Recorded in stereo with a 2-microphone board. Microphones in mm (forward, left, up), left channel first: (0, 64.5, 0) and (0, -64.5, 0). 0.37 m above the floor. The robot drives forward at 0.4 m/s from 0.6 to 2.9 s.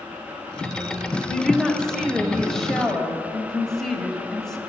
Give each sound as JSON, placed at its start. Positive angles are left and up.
{"t": 1.3, "sound": "a woman speaking", "side_deg": 5, "distance_m": 1.2}